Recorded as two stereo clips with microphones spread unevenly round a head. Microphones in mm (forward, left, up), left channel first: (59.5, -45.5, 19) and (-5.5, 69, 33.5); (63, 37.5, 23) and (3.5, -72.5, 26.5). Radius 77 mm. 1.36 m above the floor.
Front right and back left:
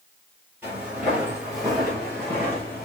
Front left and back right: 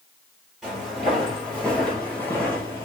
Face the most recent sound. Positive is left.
turn(degrees=15)